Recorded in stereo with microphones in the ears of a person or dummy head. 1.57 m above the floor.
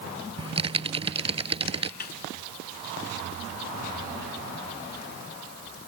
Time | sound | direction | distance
0.4 | typing on a keyboard | 30° right (ahead or behind) | ?
2.0 | a snare drum | 50° left (ahead or behind) | ?